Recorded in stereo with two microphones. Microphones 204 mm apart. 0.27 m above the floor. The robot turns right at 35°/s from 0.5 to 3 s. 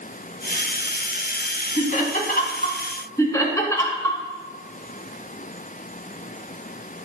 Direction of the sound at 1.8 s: 35° left (ahead or behind).